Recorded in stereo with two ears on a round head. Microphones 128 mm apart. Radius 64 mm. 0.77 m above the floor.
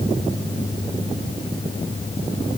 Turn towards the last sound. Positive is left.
No sound to turn to.